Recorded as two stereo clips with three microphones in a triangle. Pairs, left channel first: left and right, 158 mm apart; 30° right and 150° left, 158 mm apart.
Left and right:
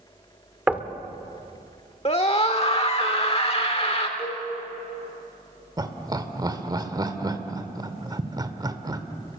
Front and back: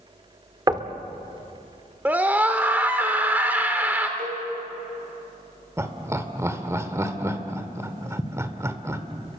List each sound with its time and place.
0.7 s knocking: 165° right, 1.3 m
2.0 s a scream: 80° left, 1.3 m
4.2 s a cowbell: 140° left, 4.5 m
5.8 s laughter: 145° right, 1.7 m